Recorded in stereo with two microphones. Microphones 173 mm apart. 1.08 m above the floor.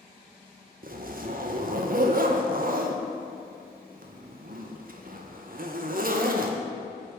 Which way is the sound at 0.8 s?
55° right (ahead or behind).